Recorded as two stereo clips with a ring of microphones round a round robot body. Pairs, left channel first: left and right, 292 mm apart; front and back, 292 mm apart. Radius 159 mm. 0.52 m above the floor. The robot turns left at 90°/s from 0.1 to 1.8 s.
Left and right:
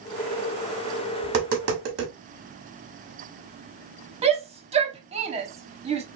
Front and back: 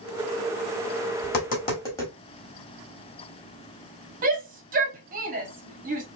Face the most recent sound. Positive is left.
turn(degrees=-145)